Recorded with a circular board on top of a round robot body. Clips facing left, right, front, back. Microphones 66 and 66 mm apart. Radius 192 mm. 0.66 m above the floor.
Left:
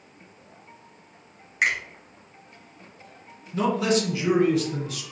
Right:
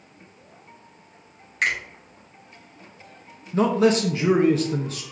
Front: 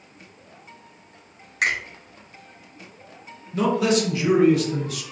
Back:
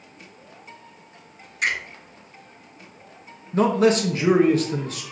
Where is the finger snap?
10° left, 2.0 m.